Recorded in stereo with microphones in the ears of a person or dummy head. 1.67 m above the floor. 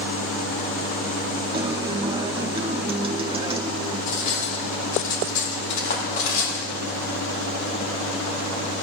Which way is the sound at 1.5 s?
25° right (ahead or behind).